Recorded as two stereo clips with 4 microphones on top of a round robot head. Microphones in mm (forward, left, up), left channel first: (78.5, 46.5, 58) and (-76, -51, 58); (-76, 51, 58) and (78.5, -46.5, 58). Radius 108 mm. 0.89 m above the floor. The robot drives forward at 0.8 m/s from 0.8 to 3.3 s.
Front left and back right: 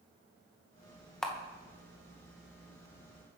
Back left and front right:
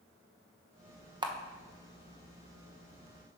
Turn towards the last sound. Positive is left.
turn(degrees=-170)